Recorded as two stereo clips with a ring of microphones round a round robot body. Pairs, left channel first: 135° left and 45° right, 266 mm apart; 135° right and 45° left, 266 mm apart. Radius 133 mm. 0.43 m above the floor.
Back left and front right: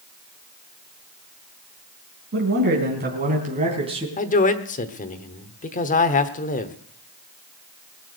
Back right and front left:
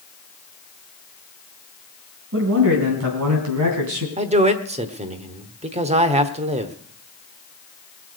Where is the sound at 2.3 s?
Straight ahead, 3.5 m; by 4.1 s 25° left, 3 m.